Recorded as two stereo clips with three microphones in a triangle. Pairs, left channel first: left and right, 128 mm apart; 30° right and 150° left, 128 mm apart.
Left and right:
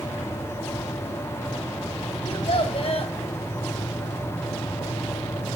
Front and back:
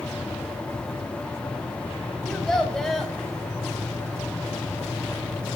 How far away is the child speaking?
About 1.4 m.